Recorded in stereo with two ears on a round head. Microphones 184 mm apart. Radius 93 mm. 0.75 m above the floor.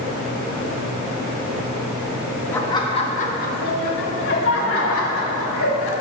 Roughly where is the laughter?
Centre.